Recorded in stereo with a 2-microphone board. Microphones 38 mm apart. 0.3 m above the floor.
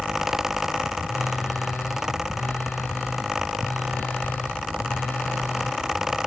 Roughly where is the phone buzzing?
Left.